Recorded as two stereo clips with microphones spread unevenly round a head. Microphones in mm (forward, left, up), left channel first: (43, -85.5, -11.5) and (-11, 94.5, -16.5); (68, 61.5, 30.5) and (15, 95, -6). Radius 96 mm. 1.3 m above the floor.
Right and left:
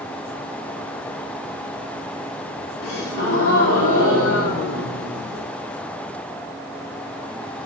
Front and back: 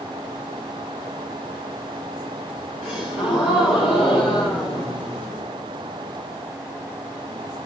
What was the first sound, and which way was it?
A gasp, 55° right.